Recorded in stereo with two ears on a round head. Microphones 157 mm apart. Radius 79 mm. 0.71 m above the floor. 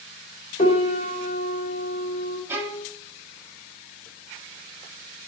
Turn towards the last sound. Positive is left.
turn(degrees=-10)  # may be behind; listen again after turning